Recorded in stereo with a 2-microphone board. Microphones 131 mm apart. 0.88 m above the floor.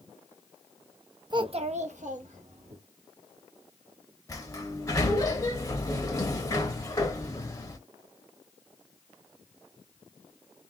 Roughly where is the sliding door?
Left.